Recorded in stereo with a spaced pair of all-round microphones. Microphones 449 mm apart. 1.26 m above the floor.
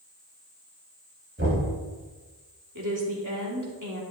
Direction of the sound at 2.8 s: 40° right (ahead or behind).